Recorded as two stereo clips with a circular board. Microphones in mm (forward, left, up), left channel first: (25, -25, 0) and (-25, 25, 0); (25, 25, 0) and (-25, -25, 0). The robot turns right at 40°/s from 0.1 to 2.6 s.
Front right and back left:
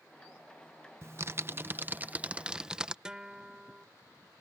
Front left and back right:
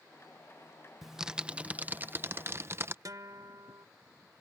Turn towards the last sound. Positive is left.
turn(degrees=-150)